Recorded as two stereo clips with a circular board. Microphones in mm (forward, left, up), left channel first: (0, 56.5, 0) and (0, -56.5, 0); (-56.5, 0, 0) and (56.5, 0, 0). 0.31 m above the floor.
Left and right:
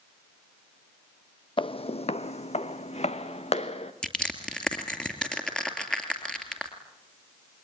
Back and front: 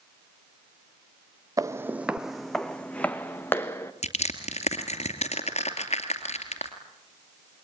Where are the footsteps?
55° left, 0.7 m; by 3.9 s 115° left, 1.6 m.